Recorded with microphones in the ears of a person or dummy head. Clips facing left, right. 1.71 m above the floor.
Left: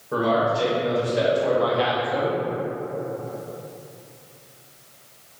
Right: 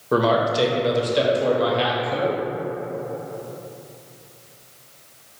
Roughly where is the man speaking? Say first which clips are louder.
Right 2 dB; right.